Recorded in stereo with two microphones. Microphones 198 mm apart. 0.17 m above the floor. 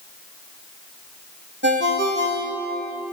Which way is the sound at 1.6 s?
70° right (ahead or behind).